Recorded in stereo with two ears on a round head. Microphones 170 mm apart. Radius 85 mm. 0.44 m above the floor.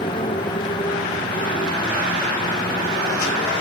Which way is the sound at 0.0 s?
25° left (ahead or behind).